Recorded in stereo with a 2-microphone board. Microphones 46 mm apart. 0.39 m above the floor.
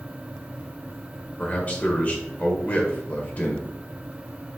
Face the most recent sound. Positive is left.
turn(degrees=35)  # may be behind; listen again after turning